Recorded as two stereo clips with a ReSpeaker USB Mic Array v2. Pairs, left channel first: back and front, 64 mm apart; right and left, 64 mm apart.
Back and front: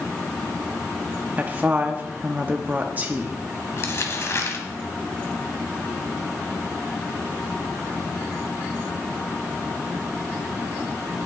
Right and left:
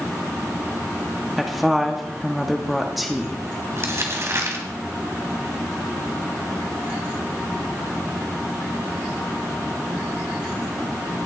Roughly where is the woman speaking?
Ahead.